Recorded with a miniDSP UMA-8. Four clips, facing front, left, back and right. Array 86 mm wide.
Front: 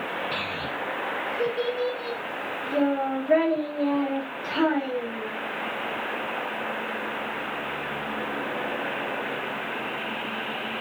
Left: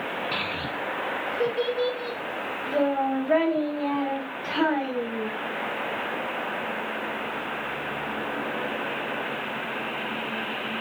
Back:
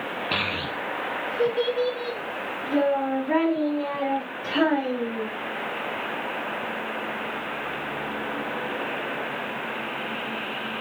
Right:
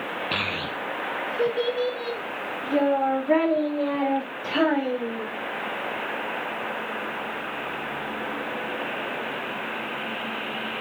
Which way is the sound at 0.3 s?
135° right.